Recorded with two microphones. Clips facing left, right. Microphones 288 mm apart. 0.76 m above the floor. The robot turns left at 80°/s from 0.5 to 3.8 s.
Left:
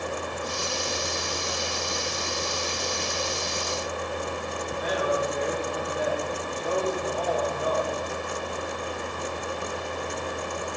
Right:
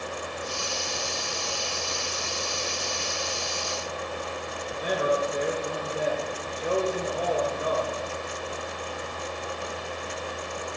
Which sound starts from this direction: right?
A man speaking, at 4.7 s.